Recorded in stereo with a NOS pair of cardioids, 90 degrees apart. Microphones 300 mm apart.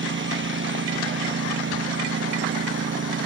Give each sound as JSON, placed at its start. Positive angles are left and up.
{"t": 0.0, "sound": "a lawn mower", "azimuth_deg": -40}